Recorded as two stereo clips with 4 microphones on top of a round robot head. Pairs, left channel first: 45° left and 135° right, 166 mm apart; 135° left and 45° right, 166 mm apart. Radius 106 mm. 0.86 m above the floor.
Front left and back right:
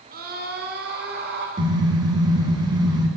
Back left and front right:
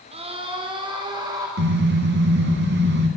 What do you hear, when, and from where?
0.1 s a scream: 100° right, 3.5 m; by 1.5 s 115° right, 4.5 m
1.6 s a car horn: 65° right, 4 m